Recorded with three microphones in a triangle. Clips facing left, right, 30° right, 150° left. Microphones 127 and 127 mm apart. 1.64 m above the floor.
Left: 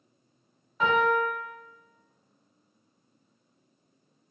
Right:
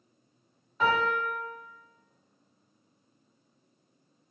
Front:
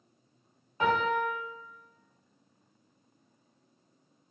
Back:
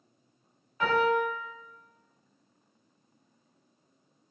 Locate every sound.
0.8 s a piano: 5° left, 1.5 m